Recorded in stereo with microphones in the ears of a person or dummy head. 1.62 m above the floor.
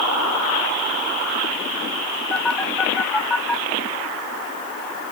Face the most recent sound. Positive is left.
turn(degrees=5)  # may be behind; listen again after turning